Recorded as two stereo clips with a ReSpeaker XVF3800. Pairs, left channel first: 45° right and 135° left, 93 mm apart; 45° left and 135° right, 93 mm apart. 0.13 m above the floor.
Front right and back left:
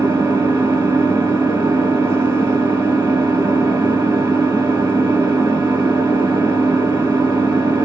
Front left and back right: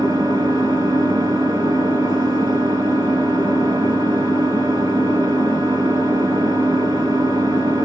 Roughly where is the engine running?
Behind.